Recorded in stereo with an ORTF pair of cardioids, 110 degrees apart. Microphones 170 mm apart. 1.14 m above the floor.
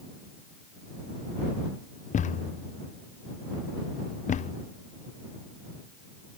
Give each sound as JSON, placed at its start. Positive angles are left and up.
{"t": 2.1, "sound": "a thud", "azimuth_deg": 45}